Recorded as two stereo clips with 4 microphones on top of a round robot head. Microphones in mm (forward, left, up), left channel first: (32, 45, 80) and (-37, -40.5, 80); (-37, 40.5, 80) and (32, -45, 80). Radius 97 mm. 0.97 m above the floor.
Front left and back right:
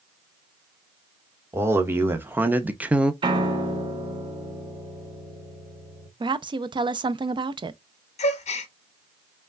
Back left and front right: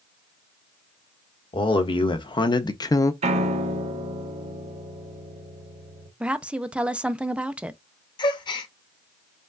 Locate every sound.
1.5 s a man speaking: 165° left, 1.4 m; by 3.1 s 155° left, 0.7 m
3.2 s a piano: 80° right, 0.6 m
6.2 s a woman speaking: 125° right, 0.5 m
8.2 s a gasp: 80° left, 0.8 m